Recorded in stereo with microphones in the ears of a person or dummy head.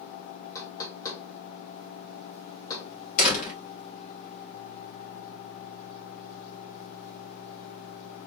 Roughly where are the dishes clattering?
No dishes clattering in this recording.